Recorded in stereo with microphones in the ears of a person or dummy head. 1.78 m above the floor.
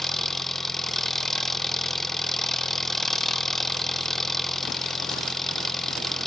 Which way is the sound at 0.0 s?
15° left (ahead or behind).